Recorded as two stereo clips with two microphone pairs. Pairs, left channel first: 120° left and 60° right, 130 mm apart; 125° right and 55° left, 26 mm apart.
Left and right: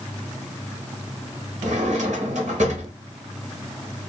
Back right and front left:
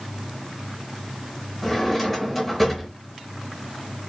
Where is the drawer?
35° right, 0.9 m.